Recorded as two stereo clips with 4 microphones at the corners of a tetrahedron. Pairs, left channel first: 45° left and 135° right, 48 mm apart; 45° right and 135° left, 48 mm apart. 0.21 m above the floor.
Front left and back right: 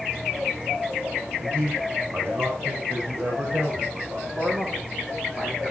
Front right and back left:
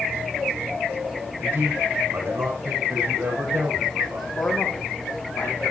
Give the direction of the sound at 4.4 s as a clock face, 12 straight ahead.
2 o'clock.